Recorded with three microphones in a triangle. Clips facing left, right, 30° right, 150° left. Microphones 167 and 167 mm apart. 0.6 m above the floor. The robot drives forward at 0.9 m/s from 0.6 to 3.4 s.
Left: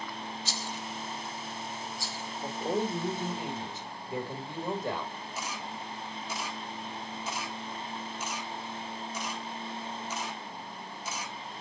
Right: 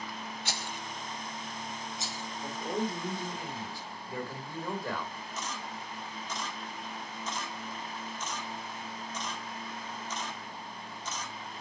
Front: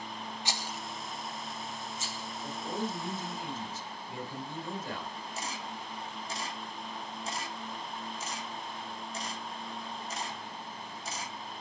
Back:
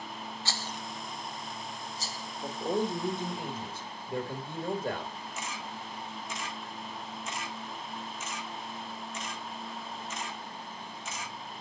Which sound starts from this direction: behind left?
A man speaking, at 2.4 s.